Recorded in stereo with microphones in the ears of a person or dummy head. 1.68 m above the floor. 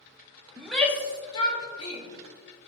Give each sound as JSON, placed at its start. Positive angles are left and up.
{"t": 0.6, "sound": "a shout", "side_deg": -5, "distance_m": 1.2}